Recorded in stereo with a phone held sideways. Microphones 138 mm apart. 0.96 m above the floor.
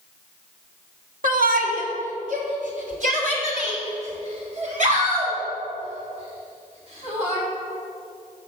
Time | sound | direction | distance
1.2 | a shout | 75° right (ahead or behind) | 1.3 m